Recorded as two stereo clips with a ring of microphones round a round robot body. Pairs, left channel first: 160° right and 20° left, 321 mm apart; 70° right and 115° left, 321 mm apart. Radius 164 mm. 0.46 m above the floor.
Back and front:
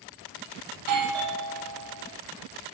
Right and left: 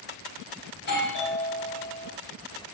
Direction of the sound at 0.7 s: 10° right.